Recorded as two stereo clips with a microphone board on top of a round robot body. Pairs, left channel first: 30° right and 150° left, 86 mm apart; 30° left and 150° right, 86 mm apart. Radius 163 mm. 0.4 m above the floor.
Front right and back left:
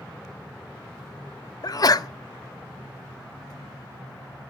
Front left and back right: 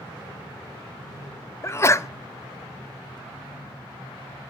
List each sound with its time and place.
1.6 s a sneeze: 15° right, 1.1 m